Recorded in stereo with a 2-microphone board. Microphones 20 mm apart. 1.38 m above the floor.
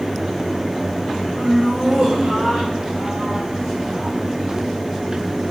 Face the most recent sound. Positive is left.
turn(degrees=-50)  # may be behind; listen again after turning